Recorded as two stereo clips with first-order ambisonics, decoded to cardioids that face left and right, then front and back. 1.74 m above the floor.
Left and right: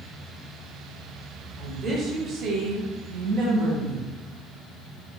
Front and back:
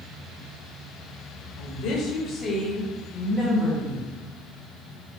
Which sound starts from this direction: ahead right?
A woman speaking, at 1.6 s.